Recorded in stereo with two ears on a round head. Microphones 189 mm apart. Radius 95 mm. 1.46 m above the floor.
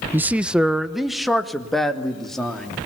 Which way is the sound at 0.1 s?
10° right (ahead or behind).